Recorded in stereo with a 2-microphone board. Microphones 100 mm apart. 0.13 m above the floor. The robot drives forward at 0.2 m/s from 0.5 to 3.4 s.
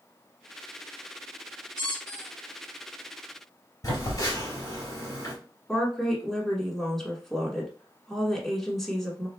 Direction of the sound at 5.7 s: Centre (ahead or behind).